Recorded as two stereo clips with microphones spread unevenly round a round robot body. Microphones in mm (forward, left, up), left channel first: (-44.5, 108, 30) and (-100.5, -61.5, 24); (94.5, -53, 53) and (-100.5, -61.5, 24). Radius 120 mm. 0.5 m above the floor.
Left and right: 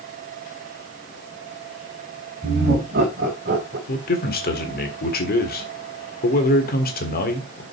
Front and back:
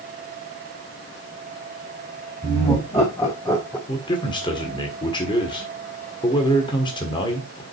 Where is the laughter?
70° right, 3.5 m; by 3.8 s 80° right, 1.9 m.